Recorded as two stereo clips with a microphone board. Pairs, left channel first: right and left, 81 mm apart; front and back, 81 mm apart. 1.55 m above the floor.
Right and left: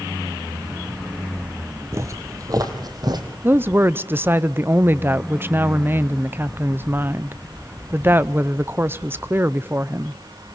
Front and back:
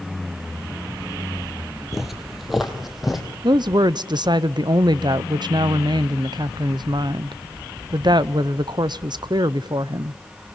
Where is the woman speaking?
155° left, 0.5 m.